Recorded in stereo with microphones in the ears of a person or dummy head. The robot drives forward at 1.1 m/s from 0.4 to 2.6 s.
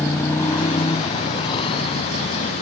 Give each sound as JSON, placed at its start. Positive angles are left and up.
{"t": 0.0, "sound": "a motorcycle", "side_deg": 15}